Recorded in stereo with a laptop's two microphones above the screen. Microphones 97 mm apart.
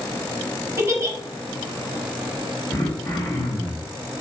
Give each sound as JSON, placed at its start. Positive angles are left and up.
{"t": 0.8, "sound": "a giggle", "side_deg": -25, "distance_m": 0.7}
{"t": 2.7, "sound": "throat clearing", "side_deg": 25, "distance_m": 0.8}